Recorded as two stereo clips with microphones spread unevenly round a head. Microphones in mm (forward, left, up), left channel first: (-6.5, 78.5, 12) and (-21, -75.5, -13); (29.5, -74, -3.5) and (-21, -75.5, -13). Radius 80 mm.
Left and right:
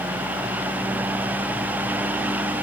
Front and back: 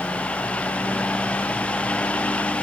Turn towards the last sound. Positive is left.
No sound to turn to.